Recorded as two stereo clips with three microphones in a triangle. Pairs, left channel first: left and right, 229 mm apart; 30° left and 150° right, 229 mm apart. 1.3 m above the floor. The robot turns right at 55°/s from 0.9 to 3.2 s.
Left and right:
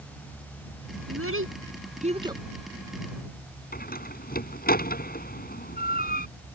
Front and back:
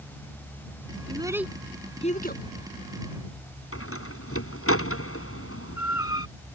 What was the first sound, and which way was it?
A child speaking, 85° right.